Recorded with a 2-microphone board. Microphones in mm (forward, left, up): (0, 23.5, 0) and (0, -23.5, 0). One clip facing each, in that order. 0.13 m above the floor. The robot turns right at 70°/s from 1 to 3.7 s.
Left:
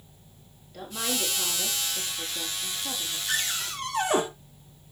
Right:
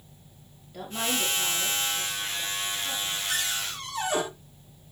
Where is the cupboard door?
40° left (ahead or behind), 3 m; by 4.2 s 65° left (ahead or behind), 3 m.